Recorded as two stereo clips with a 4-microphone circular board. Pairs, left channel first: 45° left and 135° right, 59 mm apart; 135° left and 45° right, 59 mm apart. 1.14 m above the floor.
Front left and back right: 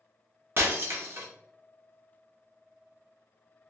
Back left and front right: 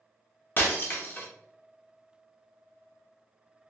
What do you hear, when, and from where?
0.6 s breaking glass: 175° right, 0.7 m